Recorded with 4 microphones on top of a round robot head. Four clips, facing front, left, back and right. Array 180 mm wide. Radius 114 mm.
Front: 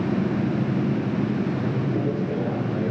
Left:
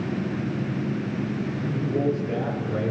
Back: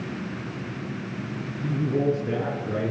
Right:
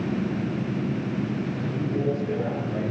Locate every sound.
1.6 s a man speaking: 175° left, 7 m; by 2.9 s 170° left, 8.5 m